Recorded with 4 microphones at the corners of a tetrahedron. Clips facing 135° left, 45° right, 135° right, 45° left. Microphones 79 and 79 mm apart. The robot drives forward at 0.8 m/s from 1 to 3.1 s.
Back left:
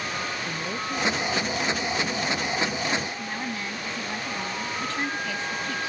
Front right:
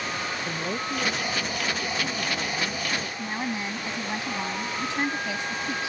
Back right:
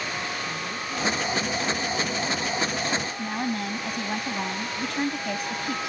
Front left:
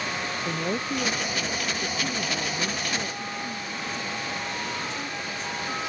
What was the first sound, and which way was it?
A woman speaking, 30° left.